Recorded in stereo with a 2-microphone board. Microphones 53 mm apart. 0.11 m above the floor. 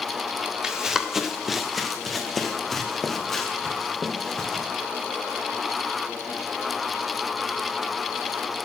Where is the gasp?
No gasp in this recording.